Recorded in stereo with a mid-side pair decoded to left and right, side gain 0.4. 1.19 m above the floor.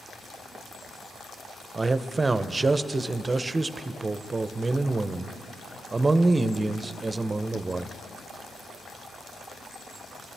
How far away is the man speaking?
About 0.6 m.